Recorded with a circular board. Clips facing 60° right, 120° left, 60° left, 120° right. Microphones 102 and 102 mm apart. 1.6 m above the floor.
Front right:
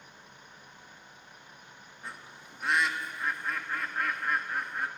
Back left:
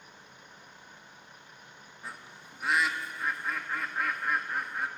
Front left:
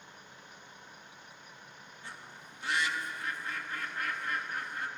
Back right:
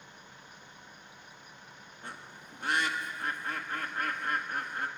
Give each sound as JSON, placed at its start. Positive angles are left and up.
{"t": 2.0, "sound": "a bird", "azimuth_deg": -155, "distance_m": 1.7}